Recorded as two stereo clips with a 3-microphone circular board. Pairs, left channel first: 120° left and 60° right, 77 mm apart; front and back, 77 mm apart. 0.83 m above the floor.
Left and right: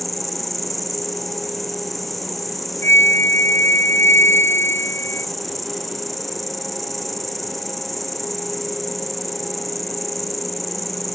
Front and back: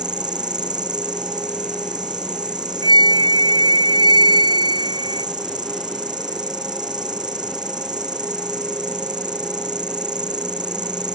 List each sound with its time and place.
0.0 s an insect: 150° right
2.8 s a flute: straight behind